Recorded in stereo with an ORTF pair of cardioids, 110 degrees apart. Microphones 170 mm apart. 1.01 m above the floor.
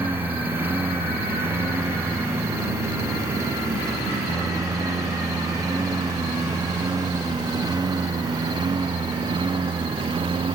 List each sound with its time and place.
0.0 s a lawn mower: 10° right; by 10.6 s 30° right